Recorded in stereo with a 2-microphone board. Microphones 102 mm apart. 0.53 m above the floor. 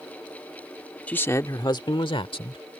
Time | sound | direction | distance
1.1 | a man speaking | 10° left (ahead or behind) | ?